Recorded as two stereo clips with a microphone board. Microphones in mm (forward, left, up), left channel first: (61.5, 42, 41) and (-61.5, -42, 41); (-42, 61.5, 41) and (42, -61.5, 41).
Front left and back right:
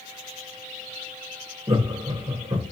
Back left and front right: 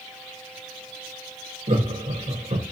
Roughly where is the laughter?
Right.